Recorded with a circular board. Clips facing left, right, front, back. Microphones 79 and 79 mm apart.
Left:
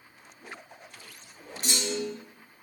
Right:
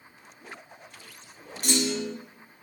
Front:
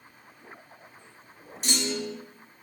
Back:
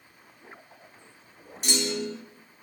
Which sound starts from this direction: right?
A clunk, at 1.6 s.